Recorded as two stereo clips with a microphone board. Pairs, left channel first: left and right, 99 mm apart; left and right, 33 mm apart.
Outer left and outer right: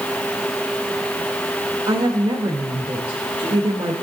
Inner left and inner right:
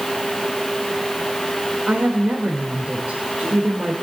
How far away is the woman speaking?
About 1.5 m.